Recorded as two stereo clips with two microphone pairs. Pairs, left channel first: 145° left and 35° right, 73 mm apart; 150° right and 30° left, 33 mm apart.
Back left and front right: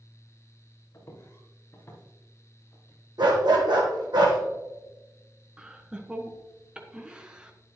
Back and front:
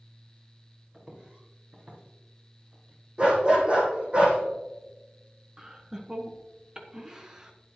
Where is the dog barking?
25° right, 2.5 m.